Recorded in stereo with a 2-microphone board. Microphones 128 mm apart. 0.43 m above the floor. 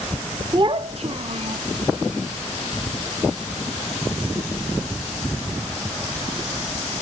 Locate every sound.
0.5 s a child speaking: 35° right (ahead or behind), 0.5 m; by 1.6 s 55° right (ahead or behind), 1.2 m